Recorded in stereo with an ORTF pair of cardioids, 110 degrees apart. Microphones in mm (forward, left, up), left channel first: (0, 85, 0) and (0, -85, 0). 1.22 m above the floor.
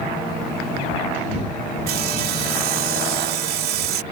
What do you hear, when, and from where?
1.9 s sawing: 65° right